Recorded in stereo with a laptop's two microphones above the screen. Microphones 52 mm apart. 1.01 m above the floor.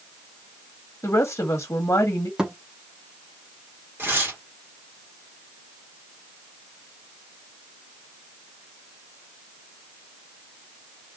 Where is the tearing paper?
45° right (ahead or behind), 1.6 m.